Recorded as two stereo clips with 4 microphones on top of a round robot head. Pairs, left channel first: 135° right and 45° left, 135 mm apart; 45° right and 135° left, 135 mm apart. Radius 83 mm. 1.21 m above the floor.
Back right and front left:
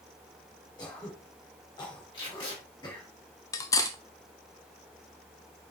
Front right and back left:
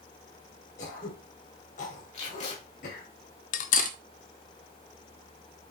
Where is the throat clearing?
75° right, 2.5 m.